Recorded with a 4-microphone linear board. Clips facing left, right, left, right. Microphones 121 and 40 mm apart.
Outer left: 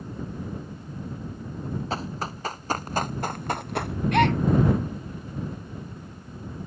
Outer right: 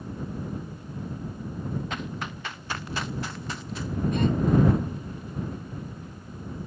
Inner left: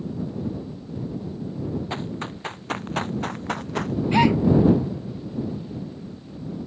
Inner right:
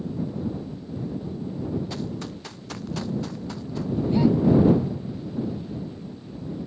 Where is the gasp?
75° left (ahead or behind).